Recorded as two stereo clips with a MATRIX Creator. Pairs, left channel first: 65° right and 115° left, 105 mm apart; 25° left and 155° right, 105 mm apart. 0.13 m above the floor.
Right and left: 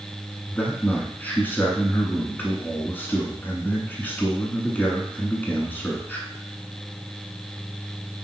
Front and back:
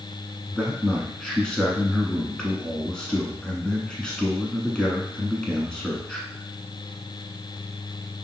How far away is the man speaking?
About 1.2 m.